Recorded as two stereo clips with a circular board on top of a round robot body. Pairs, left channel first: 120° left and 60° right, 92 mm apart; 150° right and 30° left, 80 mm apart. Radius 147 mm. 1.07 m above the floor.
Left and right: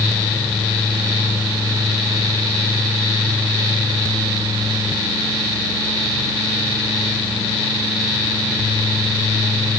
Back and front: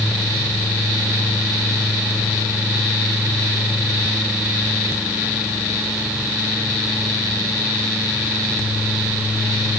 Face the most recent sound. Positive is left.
No sound to turn to.